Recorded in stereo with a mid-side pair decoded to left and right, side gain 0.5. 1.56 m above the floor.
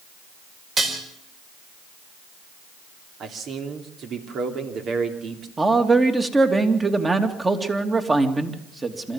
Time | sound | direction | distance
0.8 | dishes clattering | 40° right | 4.5 m
3.2 | a man speaking | 60° right | 3 m
5.6 | a man speaking | 20° right | 2.5 m